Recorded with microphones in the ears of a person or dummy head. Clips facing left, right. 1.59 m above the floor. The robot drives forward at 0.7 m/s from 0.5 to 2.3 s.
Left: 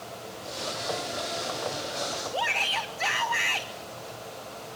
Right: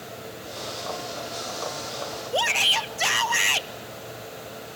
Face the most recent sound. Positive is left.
turn(degrees=-50)  # may be behind; listen again after turning